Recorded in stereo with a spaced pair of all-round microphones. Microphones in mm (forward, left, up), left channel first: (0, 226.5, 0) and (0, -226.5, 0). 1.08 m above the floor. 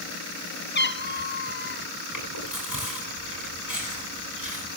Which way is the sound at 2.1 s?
40° left (ahead or behind).